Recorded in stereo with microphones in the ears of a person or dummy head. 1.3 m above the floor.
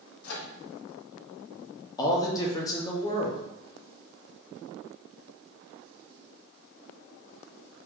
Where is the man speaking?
15° left (ahead or behind), 0.7 m.